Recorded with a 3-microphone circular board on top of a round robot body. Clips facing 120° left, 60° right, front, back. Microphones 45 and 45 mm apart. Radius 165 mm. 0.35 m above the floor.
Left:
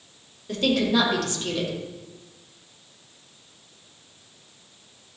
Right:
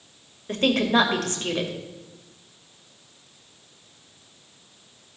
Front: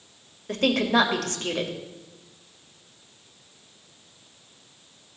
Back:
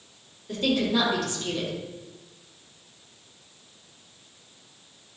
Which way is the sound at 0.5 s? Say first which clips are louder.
Right 1 dB, front 3 dB; 20° right.